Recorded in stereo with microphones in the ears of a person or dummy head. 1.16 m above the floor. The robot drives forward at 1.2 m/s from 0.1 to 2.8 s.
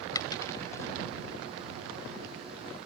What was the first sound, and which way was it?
A dropped coin, 20° left (ahead or behind).